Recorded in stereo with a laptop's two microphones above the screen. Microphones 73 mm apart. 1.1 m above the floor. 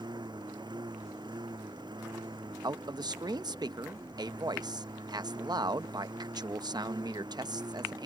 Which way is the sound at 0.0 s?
80° right.